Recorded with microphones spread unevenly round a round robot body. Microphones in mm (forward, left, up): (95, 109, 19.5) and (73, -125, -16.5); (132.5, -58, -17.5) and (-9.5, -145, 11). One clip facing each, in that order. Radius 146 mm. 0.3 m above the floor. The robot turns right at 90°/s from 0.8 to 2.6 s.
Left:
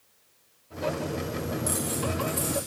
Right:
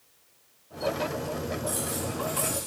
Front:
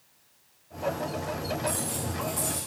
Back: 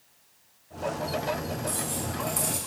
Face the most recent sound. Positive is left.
turn(degrees=-160)